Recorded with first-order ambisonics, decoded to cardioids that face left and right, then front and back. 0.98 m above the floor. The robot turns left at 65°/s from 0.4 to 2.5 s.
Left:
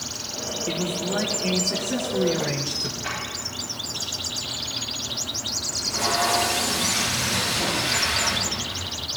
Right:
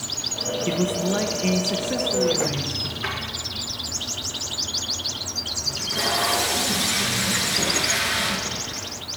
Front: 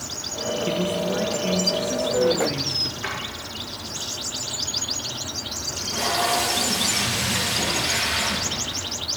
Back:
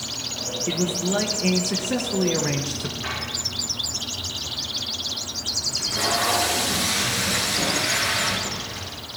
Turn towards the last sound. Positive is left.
turn(degrees=-125)